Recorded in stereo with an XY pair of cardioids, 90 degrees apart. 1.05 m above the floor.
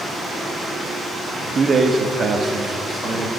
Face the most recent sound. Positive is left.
turn(degrees=-35)